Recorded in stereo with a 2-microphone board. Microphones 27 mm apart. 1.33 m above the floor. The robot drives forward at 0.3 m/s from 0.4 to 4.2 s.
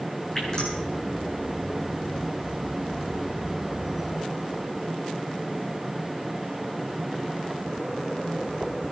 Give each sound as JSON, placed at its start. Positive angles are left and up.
{"t": 0.3, "sound": "dripping", "side_deg": 25, "distance_m": 8.5}